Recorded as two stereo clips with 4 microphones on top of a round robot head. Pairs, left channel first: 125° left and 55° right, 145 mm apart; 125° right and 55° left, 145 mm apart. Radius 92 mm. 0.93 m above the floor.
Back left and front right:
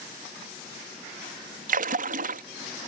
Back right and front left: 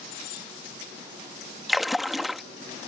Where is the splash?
35° right.